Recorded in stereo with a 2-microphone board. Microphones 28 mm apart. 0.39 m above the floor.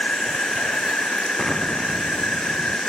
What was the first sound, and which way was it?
An insect, 65° left (ahead or behind).